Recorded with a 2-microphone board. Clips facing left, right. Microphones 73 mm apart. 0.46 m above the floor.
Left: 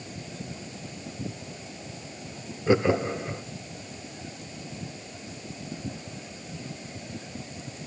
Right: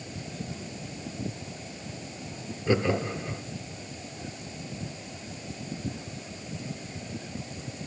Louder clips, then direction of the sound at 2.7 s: Left 3 dB; 20° left (ahead or behind).